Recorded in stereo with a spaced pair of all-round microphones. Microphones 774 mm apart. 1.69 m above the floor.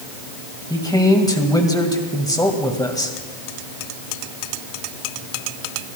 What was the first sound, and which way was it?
A man speaking, 5° left (ahead or behind).